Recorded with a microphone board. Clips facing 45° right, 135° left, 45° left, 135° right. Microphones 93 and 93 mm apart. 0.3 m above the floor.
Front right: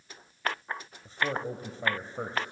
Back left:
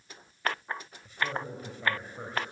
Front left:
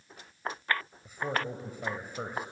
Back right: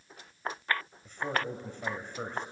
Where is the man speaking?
30° right, 1.6 m.